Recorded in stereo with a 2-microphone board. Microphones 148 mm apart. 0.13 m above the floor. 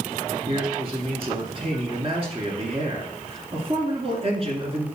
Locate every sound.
0.5 s a man speaking: 40° right (ahead or behind), 2 m